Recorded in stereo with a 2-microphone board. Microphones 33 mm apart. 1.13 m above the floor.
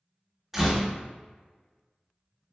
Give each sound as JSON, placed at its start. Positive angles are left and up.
{"t": 0.5, "sound": "a door slam", "side_deg": -10, "distance_m": 1.0}